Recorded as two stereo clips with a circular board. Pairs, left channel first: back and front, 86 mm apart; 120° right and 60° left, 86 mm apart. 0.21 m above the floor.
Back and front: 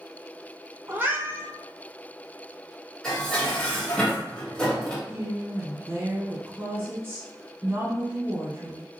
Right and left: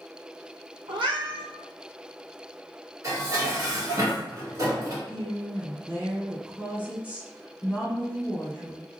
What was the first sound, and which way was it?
A cat meowing, 65° left.